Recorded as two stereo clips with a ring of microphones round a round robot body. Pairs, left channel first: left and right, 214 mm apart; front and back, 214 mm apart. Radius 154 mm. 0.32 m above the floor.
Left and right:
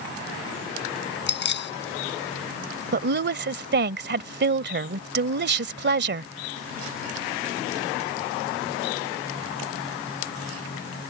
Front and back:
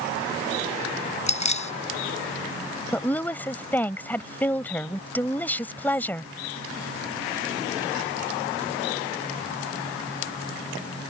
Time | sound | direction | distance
1.3 | keys jangling | 55° left | ?
2.9 | a woman speaking | 80° right | ?